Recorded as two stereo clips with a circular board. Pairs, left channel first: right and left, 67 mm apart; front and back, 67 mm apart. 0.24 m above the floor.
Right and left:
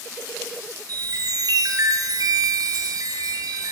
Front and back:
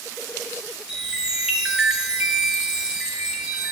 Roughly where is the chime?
Left.